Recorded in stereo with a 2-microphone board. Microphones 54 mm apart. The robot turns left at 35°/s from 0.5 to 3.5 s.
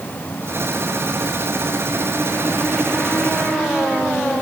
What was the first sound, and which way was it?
Only background noise.